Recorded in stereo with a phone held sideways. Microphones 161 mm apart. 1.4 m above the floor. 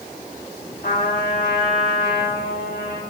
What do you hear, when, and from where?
0.8 s a trumpet: 75° left (ahead or behind), 2.5 m